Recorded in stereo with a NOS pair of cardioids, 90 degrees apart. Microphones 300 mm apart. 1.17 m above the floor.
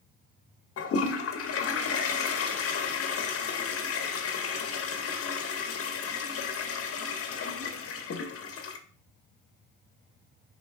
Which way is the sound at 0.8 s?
50° left.